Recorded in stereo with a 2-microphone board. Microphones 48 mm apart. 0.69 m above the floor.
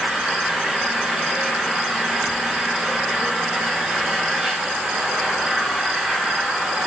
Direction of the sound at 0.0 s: 15° right (ahead or behind).